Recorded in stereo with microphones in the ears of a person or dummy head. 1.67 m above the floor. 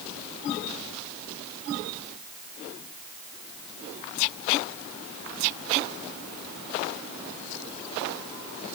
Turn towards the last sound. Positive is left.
No sound to turn to.